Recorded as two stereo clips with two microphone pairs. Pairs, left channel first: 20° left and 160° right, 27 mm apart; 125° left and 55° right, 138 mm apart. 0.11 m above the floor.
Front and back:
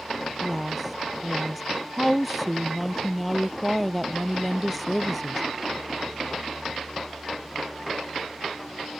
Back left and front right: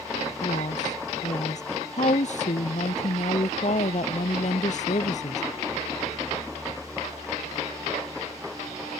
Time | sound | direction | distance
0.4 | a woman speaking | 110° left | ?